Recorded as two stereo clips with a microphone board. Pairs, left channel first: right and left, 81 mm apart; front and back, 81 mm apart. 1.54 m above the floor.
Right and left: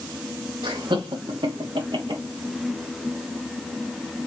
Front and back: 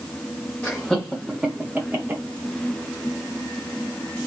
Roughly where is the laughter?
Left.